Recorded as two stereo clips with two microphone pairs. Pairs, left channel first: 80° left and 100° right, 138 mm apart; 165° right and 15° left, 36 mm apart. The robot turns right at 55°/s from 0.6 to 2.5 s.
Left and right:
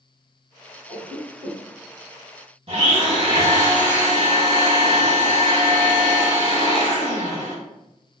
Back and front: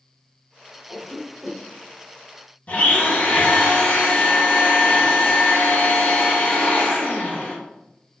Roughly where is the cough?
Ahead.